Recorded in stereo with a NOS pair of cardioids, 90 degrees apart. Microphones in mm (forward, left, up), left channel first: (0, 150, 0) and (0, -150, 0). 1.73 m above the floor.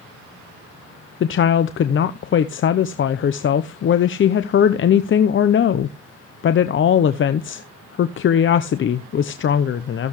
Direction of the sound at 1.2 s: 45° left.